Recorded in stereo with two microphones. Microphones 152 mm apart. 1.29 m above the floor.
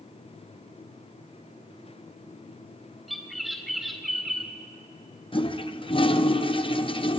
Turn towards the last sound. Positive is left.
turn(degrees=35)  # may be behind; listen again after turning